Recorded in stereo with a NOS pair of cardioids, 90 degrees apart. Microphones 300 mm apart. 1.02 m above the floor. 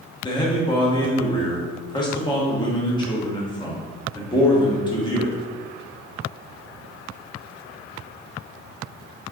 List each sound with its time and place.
0.2 s a man speaking: 15° left, 1.1 m